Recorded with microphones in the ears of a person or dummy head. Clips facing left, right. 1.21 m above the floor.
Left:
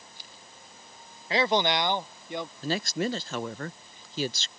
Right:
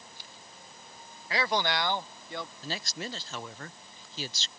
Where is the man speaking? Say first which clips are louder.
Left 5 dB; 30° left (ahead or behind); by 2.5 s 20° left (ahead or behind).